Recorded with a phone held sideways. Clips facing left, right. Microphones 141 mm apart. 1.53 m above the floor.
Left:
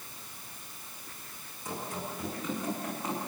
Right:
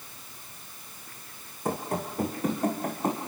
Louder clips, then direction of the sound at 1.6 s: Right 7 dB; 60° right (ahead or behind).